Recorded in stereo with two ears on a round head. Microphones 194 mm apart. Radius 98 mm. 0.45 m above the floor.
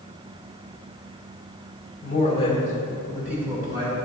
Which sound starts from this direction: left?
A man speaking, at 2.0 s.